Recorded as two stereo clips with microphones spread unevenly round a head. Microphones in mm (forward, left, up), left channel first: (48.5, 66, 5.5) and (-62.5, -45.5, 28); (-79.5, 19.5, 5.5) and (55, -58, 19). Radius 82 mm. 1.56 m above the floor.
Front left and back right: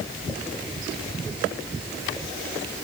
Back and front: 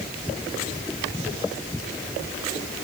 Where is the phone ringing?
I don't hear a phone ringing.